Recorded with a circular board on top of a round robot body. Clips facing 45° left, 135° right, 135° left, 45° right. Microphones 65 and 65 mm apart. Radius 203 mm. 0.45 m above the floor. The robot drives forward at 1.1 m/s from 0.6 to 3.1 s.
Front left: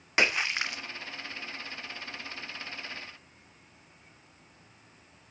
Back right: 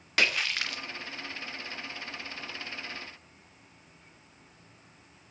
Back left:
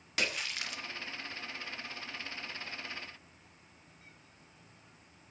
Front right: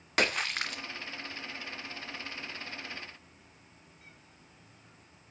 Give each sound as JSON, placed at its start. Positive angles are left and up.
{"t": 0.2, "sound": "a splash", "azimuth_deg": -20, "distance_m": 2.5}